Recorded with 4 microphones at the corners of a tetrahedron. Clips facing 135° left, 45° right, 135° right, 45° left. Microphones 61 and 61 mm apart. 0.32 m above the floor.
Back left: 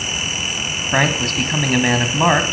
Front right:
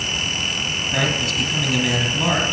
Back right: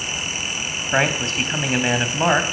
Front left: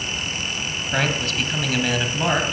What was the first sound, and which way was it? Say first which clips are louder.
A man speaking: back left 5 dB, back right 3 dB; 165° left.